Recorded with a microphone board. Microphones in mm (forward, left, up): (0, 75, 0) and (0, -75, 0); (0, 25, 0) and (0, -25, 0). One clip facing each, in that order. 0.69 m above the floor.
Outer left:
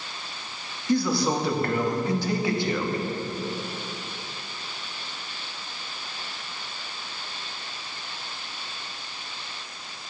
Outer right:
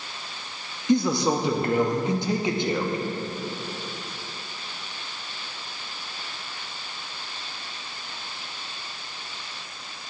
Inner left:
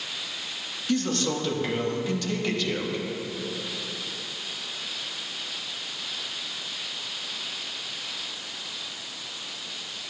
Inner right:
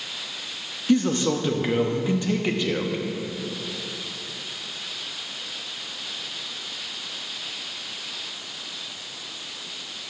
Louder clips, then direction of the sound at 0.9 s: Outer right 2 dB, inner right 5 dB; 20° right (ahead or behind).